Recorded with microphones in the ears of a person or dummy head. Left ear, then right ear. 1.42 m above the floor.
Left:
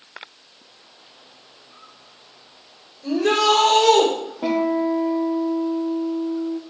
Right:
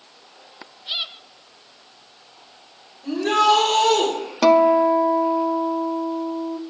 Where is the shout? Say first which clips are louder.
Right 1 dB; 85° left, 4.5 m.